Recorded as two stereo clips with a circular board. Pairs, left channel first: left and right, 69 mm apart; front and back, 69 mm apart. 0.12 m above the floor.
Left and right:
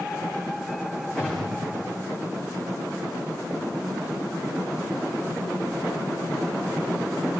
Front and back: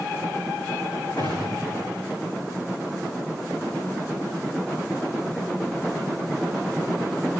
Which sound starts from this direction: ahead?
A gunshot, at 1.2 s.